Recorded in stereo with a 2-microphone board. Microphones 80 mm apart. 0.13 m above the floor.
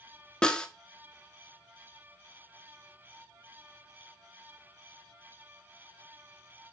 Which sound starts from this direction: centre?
A snare drum, at 0.4 s.